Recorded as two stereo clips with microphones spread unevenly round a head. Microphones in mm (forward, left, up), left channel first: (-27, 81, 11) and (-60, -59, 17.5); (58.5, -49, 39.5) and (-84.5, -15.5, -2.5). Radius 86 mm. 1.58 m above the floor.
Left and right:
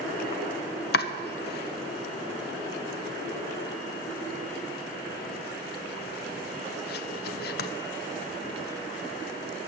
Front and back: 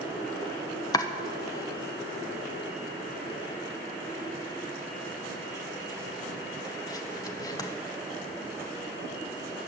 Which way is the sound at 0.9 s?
60° left.